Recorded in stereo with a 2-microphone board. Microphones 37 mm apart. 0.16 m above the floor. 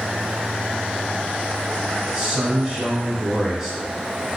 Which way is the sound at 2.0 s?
25° right (ahead or behind).